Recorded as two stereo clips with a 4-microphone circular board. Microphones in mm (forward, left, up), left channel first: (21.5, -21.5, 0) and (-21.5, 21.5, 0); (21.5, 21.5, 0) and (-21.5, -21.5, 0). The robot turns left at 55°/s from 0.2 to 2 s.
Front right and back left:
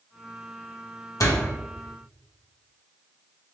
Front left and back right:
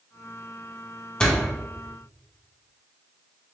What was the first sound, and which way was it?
A door slam, 30° right.